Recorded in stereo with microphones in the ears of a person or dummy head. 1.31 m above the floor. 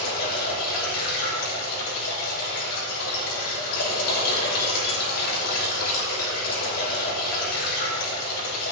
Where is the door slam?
I don't hear a door slam.